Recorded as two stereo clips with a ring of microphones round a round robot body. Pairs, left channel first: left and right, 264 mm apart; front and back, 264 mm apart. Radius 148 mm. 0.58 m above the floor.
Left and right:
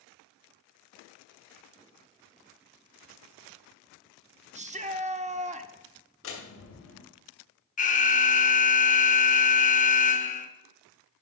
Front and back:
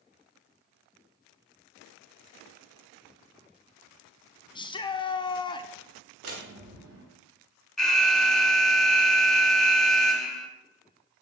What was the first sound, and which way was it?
A shout, 55° right.